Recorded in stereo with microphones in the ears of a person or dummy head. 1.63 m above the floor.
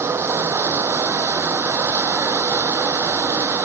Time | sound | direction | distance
0.0 | running water | 5° right (ahead or behind) | ?